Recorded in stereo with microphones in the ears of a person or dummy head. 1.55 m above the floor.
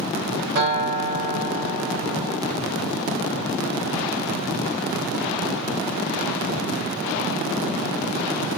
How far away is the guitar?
About 1.1 m.